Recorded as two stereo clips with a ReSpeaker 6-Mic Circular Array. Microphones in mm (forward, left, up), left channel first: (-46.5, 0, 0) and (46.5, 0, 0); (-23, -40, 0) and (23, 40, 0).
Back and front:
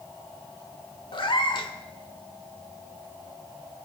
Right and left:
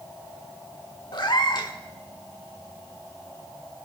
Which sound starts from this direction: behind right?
A cat meowing, at 1.1 s.